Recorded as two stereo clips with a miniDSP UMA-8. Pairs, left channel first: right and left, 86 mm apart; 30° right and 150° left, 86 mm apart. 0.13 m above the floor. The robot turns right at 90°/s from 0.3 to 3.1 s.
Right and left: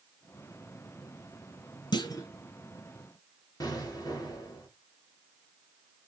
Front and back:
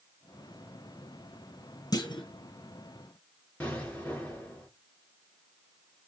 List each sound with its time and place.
1.9 s a clunk: 70° right, 0.8 m; by 2.3 s 35° right, 0.8 m
3.6 s an explosion: 95° right, 2 m